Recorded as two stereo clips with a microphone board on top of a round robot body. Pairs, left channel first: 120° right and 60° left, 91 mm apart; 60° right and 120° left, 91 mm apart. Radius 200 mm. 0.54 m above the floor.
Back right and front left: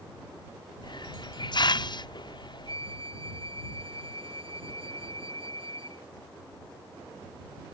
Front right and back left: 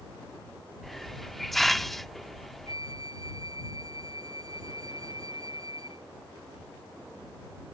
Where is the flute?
75° left.